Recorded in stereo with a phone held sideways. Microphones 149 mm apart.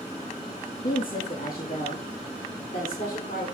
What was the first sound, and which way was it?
A woman speaking, 70° left (ahead or behind).